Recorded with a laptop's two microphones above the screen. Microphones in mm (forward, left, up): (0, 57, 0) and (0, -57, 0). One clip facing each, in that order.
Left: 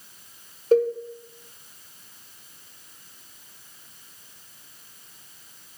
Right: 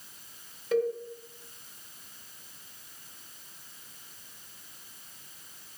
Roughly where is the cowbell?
Left.